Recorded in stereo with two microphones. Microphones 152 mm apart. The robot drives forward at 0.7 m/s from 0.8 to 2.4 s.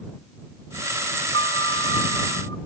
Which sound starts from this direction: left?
A piano, at 1.3 s.